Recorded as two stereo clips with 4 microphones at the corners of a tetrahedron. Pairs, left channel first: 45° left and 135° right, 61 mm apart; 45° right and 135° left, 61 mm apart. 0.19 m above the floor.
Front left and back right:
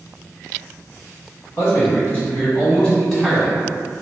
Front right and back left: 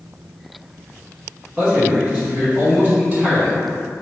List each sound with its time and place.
1.6 s a man speaking: 70° left, 1.9 m; by 3.6 s 135° left, 1.5 m